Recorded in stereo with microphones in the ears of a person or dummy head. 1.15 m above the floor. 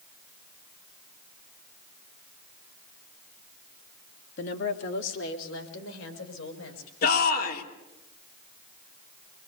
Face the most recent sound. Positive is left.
turn(degrees=55)  # may be behind; listen again after turning